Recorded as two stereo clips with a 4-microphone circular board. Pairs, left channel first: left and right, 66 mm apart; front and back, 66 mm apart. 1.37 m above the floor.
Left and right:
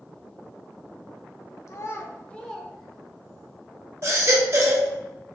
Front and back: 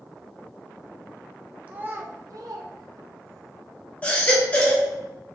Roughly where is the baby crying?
Ahead right.